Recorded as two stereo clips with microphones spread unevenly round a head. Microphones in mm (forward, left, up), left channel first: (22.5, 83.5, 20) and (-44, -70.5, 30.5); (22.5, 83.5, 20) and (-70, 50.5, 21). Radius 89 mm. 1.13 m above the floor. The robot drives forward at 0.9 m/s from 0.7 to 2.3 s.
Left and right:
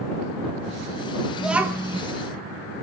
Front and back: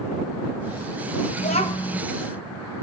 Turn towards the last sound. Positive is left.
turn(degrees=-85)